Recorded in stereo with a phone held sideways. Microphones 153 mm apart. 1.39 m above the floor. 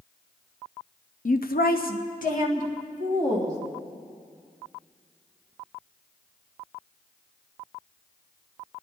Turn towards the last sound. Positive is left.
turn(degrees=50)  # may be behind; listen again after turning